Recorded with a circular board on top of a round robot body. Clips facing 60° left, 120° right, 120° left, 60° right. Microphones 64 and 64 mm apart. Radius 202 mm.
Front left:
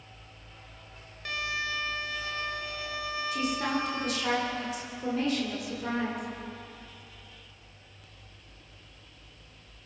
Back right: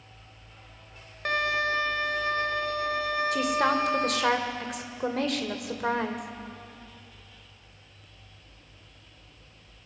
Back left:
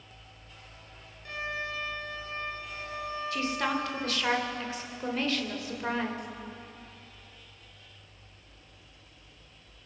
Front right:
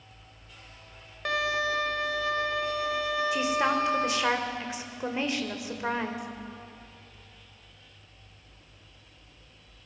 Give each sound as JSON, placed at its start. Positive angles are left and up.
{"t": 1.2, "sound": "a violin", "azimuth_deg": -80, "distance_m": 0.7}
{"t": 3.3, "sound": "a woman speaking", "azimuth_deg": -130, "distance_m": 2.5}